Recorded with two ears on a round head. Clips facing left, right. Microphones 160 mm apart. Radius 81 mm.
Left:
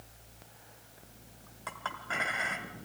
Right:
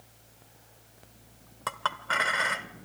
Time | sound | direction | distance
1.7 | a clink | 70° right (ahead or behind) | 1.2 m